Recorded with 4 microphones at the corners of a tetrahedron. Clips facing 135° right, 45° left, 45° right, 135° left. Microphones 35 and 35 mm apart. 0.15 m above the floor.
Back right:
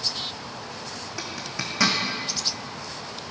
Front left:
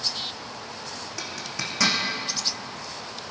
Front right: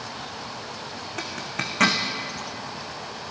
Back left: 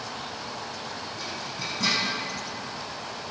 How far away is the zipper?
About 2.5 m.